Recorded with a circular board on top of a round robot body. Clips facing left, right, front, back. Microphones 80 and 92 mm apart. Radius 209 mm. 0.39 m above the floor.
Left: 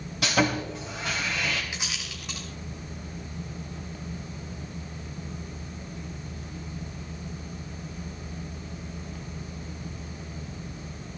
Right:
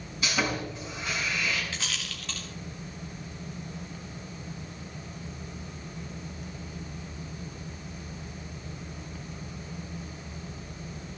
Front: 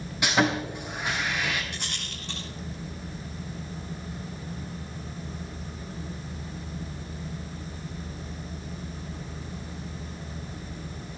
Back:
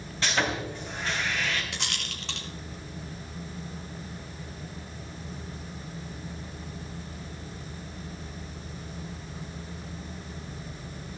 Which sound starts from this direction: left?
Sawing, at 0.2 s.